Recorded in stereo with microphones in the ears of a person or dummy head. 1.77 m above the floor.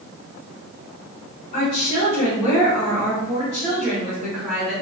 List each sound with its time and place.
1.5 s a woman speaking: 35° left (ahead or behind), 1.4 m; by 4.7 s 10° right (ahead or behind), 2.5 m